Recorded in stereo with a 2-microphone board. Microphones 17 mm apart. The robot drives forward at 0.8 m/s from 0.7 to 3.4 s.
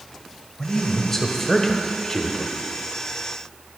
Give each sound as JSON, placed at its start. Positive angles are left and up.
{"t": 0.6, "sound": "a man speaking", "side_deg": 15, "distance_m": 1.5}